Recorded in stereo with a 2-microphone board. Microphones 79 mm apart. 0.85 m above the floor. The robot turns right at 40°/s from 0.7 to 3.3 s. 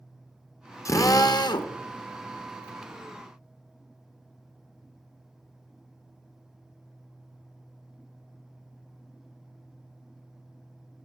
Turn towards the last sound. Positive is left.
turn(degrees=140)